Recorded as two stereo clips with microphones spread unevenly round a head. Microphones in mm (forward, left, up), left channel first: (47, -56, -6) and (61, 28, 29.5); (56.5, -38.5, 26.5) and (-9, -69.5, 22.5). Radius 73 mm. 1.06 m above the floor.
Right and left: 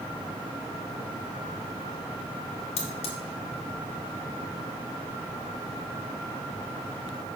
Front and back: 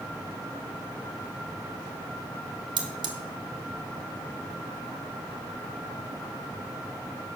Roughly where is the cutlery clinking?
Behind right.